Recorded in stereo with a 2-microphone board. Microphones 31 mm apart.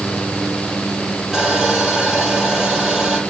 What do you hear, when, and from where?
1.3 s sawing: 10° right (ahead or behind), 5 m